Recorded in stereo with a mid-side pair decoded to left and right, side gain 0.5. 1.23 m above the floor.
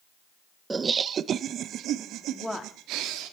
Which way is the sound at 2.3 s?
5° left.